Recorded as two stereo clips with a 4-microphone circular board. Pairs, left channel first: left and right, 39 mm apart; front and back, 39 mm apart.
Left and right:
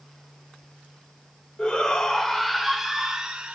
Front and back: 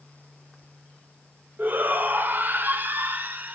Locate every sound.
1.6 s a shout: 155° left, 2 m; by 3.5 s 150° right, 2.0 m